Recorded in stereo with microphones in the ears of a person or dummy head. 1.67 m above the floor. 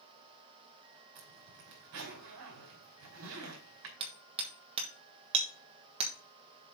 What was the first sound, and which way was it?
A zipper, 70° right (ahead or behind).